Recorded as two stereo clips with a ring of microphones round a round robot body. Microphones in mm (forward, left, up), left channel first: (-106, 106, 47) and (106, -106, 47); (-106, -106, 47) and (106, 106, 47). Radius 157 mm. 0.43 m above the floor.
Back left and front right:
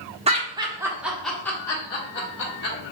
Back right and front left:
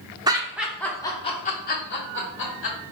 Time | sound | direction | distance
0.3 | laughter | 10° right | 1.0 m